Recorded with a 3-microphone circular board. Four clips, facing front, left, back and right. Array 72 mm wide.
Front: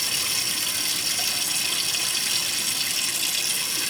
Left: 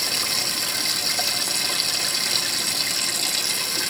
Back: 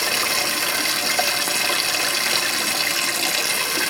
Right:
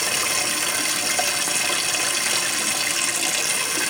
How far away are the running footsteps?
I don't hear running footsteps.